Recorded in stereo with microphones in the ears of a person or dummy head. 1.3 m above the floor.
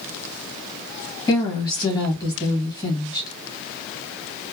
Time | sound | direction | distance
1.3 | a woman speaking | 25° left (ahead or behind) | 1.3 m